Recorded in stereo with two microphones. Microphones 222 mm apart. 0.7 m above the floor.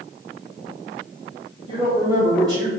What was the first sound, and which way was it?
A woman speaking, 35° right (ahead or behind).